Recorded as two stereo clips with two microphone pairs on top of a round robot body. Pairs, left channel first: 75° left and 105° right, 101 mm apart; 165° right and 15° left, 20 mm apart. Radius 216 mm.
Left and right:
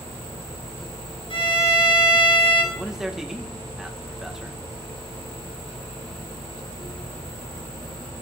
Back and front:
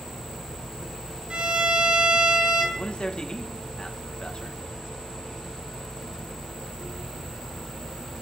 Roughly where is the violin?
Ahead left.